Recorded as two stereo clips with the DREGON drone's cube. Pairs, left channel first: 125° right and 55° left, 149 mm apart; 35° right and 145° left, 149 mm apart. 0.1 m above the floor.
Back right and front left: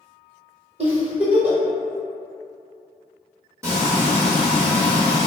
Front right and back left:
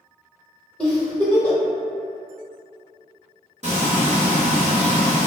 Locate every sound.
0.8 s a giggle: 50° left, 1.2 m
3.6 s frying: 125° left, 1.1 m